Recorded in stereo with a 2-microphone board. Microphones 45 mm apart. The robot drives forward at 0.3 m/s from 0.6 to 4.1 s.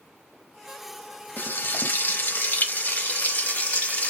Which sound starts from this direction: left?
Frying, at 1.4 s.